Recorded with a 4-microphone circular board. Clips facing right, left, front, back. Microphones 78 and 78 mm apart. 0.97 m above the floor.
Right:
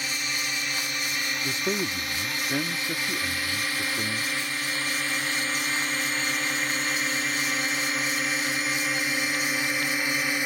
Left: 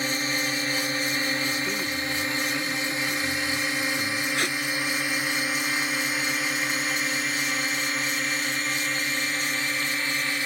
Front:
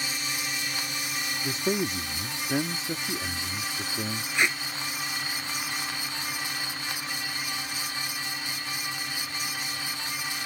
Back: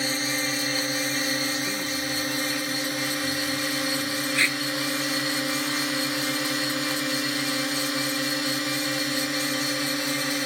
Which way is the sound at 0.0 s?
140° left.